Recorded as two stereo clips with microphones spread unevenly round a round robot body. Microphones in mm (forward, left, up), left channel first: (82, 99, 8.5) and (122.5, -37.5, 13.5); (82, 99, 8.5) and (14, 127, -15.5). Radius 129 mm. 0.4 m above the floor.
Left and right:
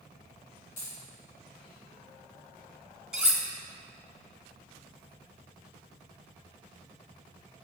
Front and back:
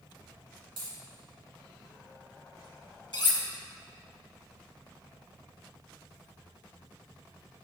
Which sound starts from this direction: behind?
A dropped coin, at 0.8 s.